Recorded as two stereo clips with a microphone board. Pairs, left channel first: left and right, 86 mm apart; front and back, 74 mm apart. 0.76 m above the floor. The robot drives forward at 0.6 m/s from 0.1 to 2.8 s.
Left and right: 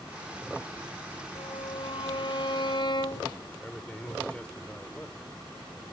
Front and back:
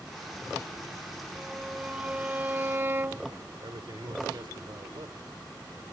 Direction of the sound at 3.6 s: 165° left.